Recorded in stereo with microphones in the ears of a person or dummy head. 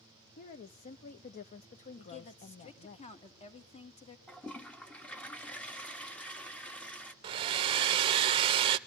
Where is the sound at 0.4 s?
40° left (ahead or behind), 0.8 m.